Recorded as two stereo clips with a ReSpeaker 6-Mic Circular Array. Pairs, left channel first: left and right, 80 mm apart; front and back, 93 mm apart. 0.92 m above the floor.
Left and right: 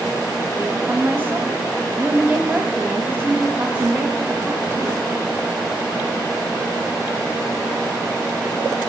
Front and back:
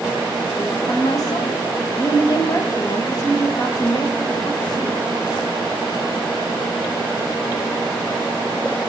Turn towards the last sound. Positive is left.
turn(degrees=-35)